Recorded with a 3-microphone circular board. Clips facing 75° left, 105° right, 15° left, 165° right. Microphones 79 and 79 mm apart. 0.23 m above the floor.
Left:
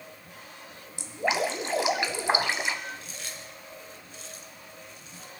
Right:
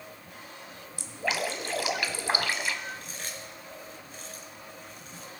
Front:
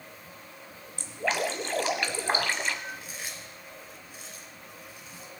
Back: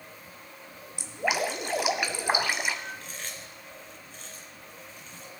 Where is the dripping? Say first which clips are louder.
Left 4 dB, back 1 dB; 125° left, 1.2 m.